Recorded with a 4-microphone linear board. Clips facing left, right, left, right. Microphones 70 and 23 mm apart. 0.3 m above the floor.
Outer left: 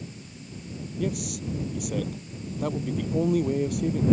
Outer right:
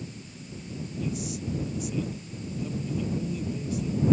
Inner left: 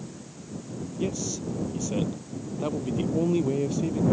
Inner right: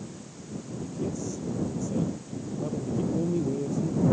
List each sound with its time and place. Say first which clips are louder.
1.0 s a man speaking: outer left 3 dB, inner left 3 dB; 55° left (ahead or behind)